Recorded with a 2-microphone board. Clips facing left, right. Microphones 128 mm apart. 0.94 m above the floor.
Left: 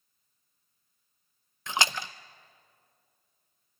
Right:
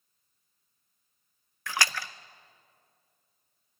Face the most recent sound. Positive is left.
turn(degrees=20)  # may be behind; listen again after turning